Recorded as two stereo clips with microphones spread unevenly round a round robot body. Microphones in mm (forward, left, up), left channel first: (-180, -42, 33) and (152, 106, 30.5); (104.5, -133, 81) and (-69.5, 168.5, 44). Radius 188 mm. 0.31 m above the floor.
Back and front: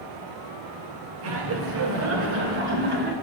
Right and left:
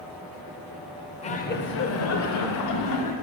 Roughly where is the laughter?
Ahead.